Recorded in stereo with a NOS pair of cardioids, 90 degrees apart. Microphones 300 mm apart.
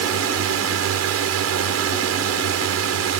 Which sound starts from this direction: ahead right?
A drone, at 0.0 s.